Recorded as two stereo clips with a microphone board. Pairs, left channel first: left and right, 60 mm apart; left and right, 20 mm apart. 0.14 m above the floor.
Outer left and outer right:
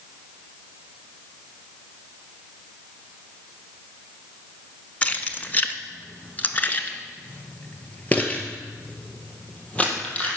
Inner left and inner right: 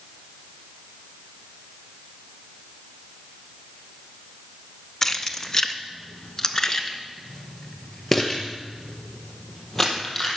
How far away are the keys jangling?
About 0.8 m.